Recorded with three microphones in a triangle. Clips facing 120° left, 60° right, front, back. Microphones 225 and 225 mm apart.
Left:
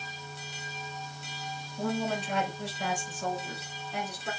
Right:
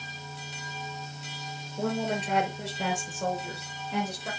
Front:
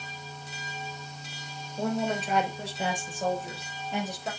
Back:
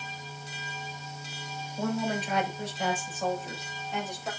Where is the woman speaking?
65° right, 4.5 m; by 4.3 s 55° right, 7 m.